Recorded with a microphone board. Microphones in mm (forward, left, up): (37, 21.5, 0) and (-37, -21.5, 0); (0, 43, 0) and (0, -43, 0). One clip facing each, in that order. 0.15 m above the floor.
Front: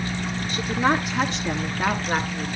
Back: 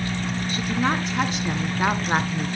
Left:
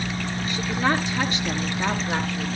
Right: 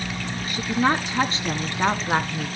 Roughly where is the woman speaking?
Ahead.